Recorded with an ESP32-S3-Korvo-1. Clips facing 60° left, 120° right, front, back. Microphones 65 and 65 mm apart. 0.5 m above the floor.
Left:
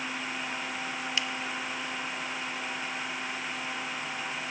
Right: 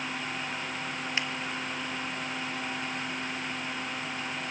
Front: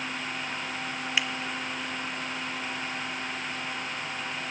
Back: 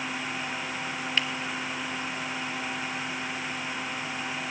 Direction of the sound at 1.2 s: 75° right.